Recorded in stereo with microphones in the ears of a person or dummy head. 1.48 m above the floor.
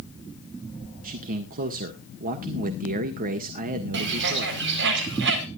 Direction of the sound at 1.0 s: 45° right (ahead or behind).